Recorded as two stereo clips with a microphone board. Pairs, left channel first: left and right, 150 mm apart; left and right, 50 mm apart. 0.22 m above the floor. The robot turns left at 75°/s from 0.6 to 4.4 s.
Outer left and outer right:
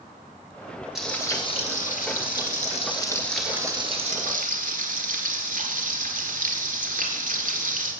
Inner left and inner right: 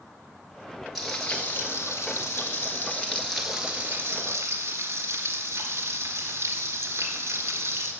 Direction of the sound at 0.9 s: Straight behind.